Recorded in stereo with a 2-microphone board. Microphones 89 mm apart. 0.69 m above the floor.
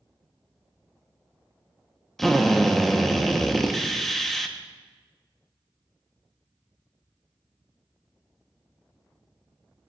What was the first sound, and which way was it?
A drill, 5° left (ahead or behind).